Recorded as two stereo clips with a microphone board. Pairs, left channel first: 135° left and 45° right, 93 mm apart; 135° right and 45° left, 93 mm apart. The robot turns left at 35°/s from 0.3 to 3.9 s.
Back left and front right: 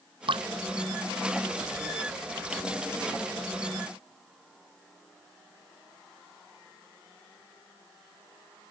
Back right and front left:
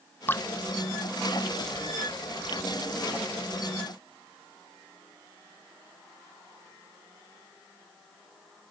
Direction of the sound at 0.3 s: 70° right.